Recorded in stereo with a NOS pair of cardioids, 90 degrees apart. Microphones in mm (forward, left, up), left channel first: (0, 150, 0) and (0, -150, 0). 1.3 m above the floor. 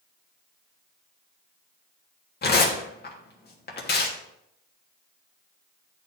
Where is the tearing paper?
35° left, 1.7 m.